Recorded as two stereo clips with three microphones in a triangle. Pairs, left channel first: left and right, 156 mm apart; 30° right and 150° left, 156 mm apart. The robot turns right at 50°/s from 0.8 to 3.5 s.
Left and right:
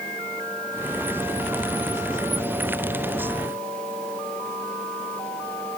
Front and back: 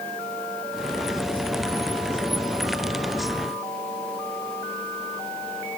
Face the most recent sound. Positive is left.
No sound to turn to.